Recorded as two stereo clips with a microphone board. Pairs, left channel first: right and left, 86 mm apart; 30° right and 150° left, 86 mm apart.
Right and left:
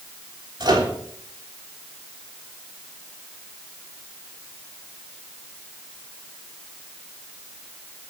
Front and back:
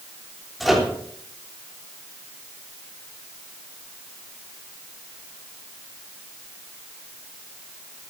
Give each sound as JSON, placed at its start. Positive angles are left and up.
{"t": 0.6, "sound": "a microwave", "azimuth_deg": 60, "distance_m": 3.0}